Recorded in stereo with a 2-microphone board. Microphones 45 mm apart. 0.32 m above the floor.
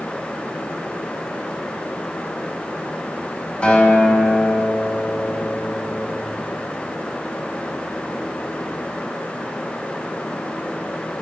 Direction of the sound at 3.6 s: 20° left (ahead or behind).